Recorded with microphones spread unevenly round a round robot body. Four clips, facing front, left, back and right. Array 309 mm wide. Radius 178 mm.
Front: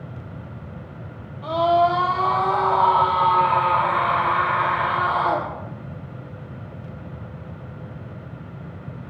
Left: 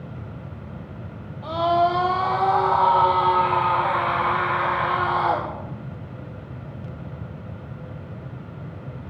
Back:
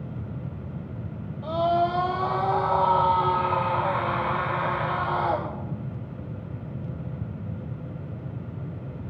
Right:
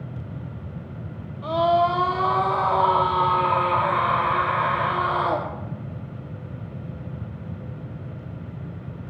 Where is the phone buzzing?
I don't hear a phone buzzing.